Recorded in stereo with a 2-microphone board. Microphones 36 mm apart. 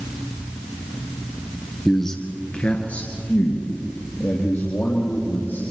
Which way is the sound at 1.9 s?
5° left (ahead or behind).